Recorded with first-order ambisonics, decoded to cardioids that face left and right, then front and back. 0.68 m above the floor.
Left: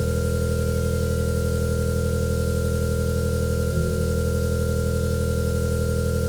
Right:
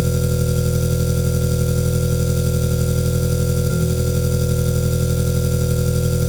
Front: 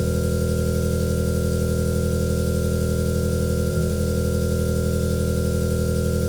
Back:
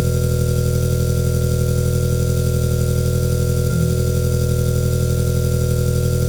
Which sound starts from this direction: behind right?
An engine running, at 0.0 s.